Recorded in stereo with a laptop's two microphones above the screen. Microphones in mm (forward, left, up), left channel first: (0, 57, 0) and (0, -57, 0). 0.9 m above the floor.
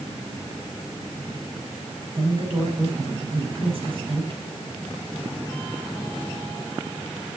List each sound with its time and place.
2.1 s a woman speaking: 50° right (ahead or behind), 6 m